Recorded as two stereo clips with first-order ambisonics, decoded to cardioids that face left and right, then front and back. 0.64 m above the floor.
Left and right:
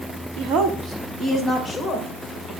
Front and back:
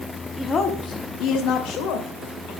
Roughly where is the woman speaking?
Right.